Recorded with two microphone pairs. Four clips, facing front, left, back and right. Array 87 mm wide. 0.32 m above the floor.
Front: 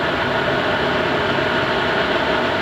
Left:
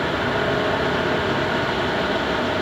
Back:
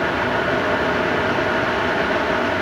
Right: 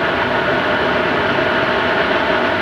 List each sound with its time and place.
Only background noise.